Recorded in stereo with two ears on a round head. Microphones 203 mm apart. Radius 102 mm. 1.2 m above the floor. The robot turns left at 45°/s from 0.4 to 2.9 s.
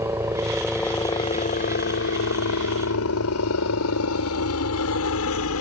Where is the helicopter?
10° right (ahead or behind); by 5.6 s 70° left (ahead or behind).